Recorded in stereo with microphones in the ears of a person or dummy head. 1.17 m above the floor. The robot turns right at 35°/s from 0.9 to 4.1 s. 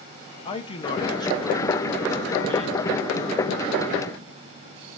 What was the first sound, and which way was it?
A man speaking, 150° left.